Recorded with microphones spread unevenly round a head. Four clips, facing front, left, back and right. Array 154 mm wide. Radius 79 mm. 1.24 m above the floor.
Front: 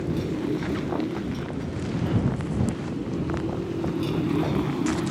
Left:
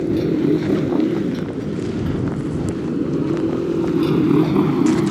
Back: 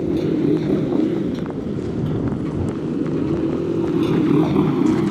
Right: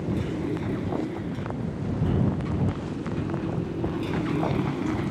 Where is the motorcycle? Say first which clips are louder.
Left 11 dB, back 9 dB; 125° left.